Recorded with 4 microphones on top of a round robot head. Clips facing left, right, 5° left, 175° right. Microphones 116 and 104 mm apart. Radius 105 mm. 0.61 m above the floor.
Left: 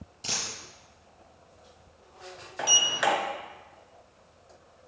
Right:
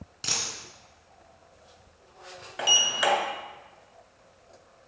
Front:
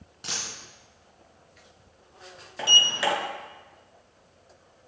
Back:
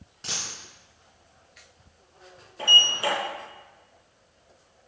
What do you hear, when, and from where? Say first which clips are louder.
0.2 s a dropped coin: right 1 dB, even; 75° right, 2.5 m
2.6 s a sliding door: even, even; 10° right, 2.5 m